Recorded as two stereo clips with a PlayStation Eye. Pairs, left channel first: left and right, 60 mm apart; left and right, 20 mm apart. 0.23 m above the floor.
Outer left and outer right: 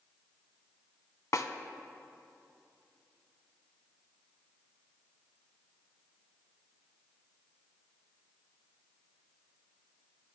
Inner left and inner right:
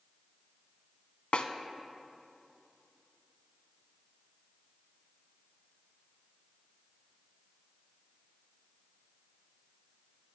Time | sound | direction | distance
1.3 | a snare drum | 60° left (ahead or behind) | 0.6 m